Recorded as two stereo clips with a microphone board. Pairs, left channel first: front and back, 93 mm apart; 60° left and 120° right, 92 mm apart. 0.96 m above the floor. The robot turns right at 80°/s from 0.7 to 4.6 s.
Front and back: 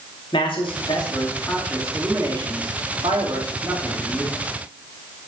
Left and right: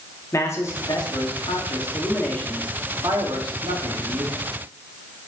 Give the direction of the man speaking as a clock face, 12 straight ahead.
12 o'clock.